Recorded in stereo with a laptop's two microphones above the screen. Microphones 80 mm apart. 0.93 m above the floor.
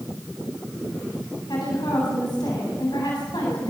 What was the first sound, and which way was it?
A woman speaking, 70° left (ahead or behind).